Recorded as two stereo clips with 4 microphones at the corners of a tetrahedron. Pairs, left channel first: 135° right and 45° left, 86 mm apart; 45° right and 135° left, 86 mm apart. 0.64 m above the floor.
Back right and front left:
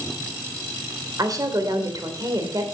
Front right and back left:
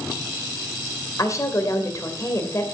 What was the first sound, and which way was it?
A woman speaking, straight ahead.